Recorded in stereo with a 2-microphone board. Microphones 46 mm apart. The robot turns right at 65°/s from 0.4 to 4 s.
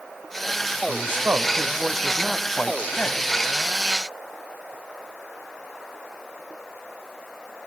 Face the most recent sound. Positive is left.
turn(degrees=120)